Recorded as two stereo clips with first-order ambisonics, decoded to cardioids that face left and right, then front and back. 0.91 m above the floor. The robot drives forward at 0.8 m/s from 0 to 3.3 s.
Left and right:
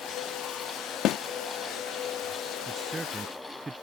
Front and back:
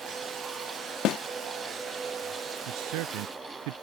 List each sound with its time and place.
1.1 s a snare drum: 45° left; by 1.2 s 50° left
2.7 s a man speaking: 170° right